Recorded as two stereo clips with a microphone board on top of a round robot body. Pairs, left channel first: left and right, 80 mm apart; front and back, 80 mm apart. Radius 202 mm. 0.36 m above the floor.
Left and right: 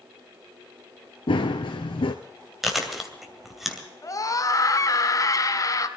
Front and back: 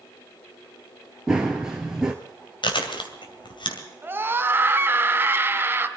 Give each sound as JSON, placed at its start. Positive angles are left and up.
{"t": 1.3, "sound": "running footsteps", "azimuth_deg": 100, "distance_m": 0.6}
{"t": 2.6, "sound": "chewing", "azimuth_deg": -5, "distance_m": 2.5}
{"t": 4.0, "sound": "a scream", "azimuth_deg": 125, "distance_m": 2.5}